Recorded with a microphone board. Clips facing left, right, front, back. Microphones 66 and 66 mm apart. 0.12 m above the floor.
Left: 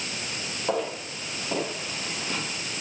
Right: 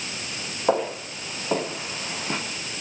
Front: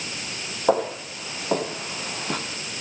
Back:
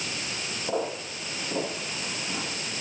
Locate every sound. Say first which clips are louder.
0.7 s footsteps: right 5 dB, front 8 dB; 30° right, 6 m